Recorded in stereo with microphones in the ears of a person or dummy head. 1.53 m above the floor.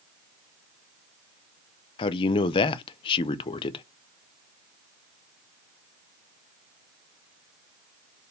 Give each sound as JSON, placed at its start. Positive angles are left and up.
{"t": 2.0, "sound": "a man speaking", "side_deg": 25, "distance_m": 0.5}